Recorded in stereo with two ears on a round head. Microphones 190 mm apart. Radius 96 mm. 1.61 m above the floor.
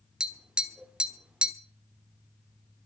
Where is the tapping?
5° right (ahead or behind), 1.5 m.